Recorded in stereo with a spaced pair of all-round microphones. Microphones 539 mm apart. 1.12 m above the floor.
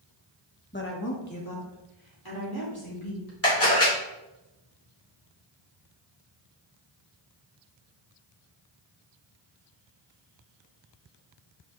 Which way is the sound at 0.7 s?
20° left (ahead or behind).